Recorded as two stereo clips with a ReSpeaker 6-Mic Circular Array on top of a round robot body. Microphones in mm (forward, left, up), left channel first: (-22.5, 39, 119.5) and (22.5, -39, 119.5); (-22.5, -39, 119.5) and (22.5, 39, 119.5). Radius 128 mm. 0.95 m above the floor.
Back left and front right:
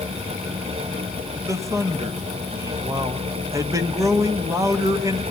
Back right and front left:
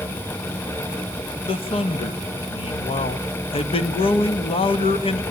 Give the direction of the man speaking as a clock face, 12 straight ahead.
4 o'clock.